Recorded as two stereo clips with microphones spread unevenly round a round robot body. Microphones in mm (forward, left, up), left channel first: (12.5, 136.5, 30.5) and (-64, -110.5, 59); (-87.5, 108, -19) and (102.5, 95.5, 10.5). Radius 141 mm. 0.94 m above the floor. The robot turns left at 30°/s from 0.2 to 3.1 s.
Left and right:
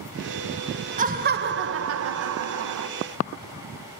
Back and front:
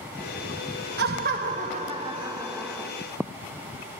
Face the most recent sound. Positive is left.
turn(degrees=-110)